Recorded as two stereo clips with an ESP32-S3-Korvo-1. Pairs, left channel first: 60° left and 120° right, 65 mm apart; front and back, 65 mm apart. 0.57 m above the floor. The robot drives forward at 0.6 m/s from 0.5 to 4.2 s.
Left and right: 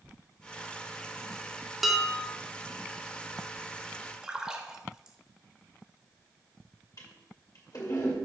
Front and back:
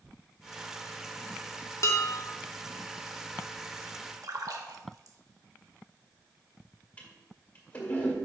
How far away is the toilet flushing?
About 1.8 m.